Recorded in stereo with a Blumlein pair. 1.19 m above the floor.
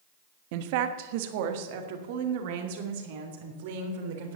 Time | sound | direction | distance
0.5 | a woman speaking | 45° right | 1.2 m